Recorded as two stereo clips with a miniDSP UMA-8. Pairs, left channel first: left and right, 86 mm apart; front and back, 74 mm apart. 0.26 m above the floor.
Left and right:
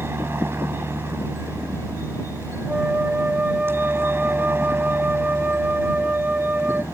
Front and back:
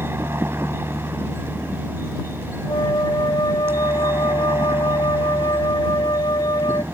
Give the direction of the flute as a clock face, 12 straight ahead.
1 o'clock.